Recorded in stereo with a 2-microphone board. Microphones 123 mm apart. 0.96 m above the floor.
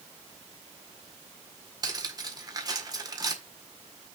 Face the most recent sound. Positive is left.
turn(degrees=-30)  # may be behind; listen again after turning